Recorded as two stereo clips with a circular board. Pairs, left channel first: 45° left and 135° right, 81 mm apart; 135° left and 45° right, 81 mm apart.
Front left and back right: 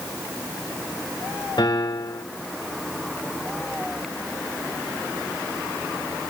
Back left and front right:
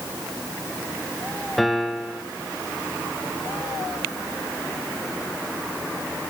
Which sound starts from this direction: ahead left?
A piano, at 1.6 s.